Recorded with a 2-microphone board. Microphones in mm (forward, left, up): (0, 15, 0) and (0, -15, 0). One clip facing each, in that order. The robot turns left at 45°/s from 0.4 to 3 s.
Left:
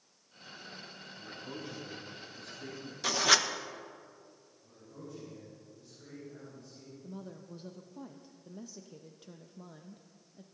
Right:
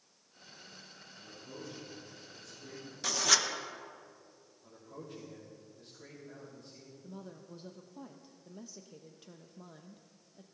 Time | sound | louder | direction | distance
1.2 | a man speaking | left 4 dB | 150° left | 6 m
3.0 | writing | left 3 dB | 20° left (ahead or behind) | 0.8 m
4.6 | a man speaking | right 1 dB | 75° right (ahead or behind) | 5.5 m
7.0 | a woman speaking | left 2 dB | centre (ahead or behind) | 0.5 m